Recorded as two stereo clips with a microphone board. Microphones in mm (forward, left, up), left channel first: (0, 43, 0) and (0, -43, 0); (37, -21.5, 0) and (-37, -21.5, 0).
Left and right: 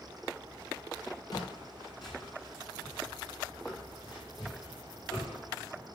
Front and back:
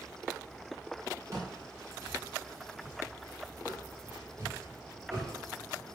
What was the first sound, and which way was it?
Footsteps, 130° left.